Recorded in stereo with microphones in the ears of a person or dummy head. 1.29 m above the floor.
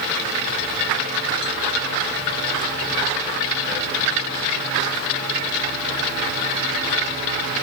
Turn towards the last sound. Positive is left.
No sound to turn to.